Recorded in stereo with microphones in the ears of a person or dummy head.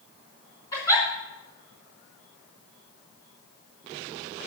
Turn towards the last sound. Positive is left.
turn(degrees=15)  # may be behind; listen again after turning